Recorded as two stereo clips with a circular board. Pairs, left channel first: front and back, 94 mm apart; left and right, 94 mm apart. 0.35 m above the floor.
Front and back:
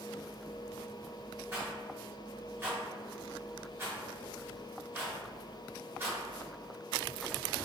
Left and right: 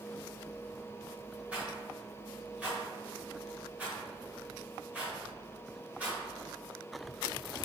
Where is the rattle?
150° right, 1.2 m.